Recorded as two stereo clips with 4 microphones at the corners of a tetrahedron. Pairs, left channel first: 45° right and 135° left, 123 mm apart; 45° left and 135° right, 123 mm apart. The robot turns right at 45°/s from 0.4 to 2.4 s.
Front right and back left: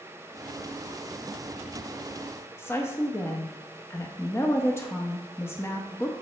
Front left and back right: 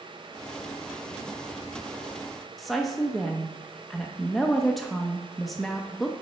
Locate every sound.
2.6 s a woman speaking: 45° right, 0.6 m